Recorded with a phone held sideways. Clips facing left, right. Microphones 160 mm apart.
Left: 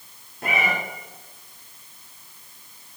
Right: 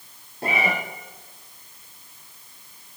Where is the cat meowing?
30° right (ahead or behind), 3.5 m.